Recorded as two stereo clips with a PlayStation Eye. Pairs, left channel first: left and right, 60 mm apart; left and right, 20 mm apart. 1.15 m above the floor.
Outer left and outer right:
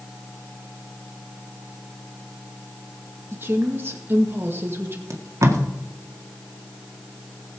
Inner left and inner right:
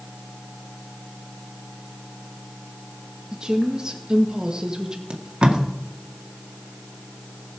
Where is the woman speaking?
40° right (ahead or behind), 1.9 m.